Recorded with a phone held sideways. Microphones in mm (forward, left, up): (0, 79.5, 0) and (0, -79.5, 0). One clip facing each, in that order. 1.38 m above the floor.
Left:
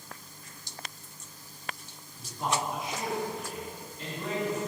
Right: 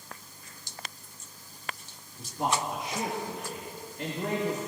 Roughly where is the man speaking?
Right.